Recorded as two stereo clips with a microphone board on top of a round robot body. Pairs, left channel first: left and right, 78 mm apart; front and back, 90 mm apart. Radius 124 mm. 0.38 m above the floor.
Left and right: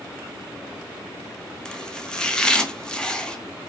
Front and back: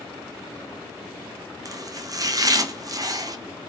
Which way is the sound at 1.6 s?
165° left.